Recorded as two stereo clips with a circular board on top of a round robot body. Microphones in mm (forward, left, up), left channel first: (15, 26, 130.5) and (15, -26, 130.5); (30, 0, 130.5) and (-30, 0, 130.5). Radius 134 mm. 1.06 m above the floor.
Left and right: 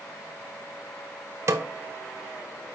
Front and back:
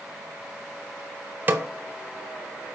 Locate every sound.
1.5 s a snare drum: 120° right, 0.5 m